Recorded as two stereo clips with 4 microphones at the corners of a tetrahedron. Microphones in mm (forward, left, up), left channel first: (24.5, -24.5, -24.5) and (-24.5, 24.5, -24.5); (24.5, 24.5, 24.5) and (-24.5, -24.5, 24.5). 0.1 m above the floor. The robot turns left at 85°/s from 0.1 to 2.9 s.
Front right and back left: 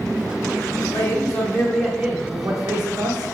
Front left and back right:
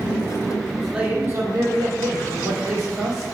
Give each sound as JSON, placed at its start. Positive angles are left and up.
{"t": 0.8, "sound": "a man speaking", "azimuth_deg": -35, "distance_m": 5.0}